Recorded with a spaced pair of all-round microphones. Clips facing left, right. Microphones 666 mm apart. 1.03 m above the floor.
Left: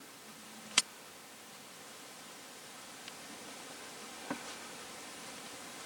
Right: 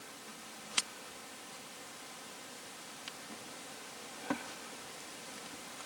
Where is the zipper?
No zipper in this recording.